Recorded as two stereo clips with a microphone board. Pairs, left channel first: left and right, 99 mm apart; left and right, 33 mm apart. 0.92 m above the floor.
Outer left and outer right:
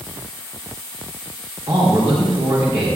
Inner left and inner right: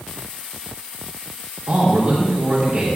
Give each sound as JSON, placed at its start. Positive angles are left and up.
{"t": 1.7, "sound": "a man speaking", "side_deg": -15, "distance_m": 3.5}